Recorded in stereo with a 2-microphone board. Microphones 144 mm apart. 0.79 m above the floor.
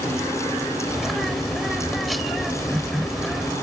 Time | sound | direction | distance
0.9 | a bird | centre (ahead or behind) | ?